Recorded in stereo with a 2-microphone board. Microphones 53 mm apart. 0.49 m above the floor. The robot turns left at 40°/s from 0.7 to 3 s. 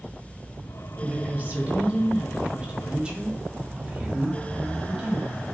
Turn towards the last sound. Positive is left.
turn(degrees=-140)